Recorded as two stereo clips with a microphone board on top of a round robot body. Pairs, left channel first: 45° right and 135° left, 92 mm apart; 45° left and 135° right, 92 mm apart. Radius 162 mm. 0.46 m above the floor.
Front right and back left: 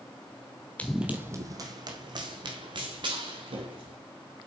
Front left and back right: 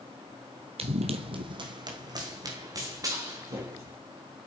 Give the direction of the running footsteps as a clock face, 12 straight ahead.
4 o'clock.